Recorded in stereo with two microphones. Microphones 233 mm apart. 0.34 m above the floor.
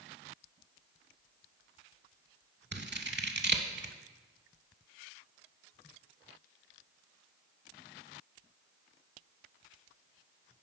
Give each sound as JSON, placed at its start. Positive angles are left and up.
{"t": 2.7, "sound": "scissors", "side_deg": -50, "distance_m": 0.6}